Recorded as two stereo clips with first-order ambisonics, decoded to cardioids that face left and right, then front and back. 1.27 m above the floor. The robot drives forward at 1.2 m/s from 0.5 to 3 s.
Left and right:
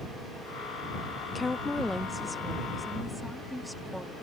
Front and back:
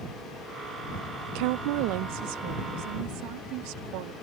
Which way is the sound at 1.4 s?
165° left.